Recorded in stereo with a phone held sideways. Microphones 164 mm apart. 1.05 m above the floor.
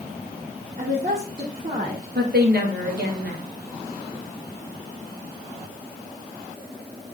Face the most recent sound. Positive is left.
turn(degrees=-75)  # may be behind; listen again after turning